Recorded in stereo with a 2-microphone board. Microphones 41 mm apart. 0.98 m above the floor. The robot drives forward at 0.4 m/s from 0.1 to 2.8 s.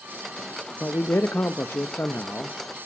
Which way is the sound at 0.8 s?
70° left (ahead or behind).